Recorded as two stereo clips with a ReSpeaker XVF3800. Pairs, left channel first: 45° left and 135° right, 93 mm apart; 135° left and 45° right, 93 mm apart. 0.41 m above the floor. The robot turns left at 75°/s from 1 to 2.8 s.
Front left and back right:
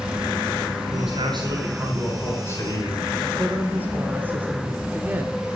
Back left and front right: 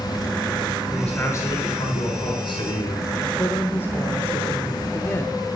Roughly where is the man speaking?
Behind right.